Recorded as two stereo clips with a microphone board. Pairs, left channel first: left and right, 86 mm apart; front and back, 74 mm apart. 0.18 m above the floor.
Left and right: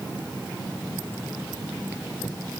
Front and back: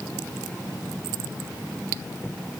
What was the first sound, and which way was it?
Only background noise.